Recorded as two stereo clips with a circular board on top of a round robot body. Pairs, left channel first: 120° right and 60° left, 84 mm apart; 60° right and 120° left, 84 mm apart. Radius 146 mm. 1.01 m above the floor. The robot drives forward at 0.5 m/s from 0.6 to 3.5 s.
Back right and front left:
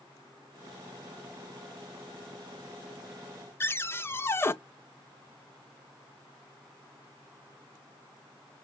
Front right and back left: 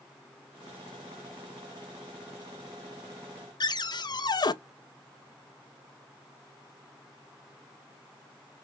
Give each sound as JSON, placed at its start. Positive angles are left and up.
{"t": 3.6, "sound": "a cupboard door", "azimuth_deg": -65, "distance_m": 0.6}